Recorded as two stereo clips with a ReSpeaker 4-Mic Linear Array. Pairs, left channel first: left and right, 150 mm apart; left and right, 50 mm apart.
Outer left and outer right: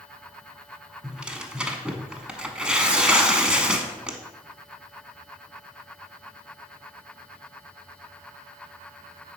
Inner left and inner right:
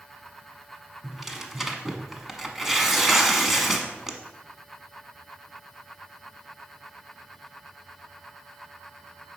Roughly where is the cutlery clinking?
No cutlery clinking in this recording.